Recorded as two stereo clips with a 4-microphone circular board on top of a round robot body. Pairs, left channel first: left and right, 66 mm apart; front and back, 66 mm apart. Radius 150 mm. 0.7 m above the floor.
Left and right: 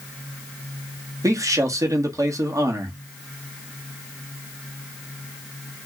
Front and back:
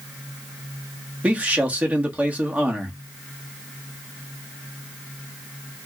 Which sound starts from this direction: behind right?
A man speaking, at 1.2 s.